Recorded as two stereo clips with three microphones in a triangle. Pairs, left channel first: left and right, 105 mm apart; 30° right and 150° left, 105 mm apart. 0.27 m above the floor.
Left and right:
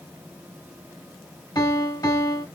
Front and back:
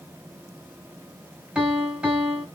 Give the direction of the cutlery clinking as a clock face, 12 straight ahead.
No cutlery clinking in this recording.